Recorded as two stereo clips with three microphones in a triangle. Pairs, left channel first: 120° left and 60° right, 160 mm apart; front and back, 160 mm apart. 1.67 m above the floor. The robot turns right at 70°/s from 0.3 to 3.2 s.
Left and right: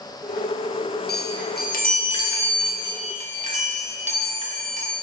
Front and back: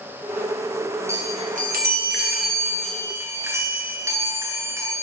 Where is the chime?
105° left, 1.3 m; by 4.9 s 105° right, 1.3 m.